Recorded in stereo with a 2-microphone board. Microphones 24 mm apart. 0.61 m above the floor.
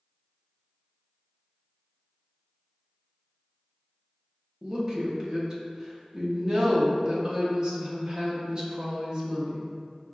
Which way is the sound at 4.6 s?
30° right (ahead or behind).